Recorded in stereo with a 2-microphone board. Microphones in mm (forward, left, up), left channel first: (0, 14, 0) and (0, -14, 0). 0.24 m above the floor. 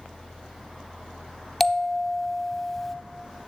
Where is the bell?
10° left (ahead or behind), 0.5 m.